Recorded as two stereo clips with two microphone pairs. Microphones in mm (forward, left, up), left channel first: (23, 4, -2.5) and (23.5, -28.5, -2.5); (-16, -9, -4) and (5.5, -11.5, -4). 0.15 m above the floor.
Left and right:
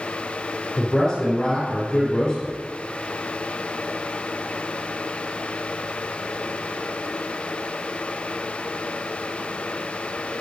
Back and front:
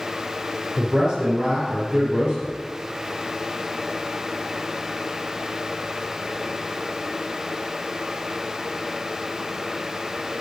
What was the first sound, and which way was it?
A man speaking, 30° left.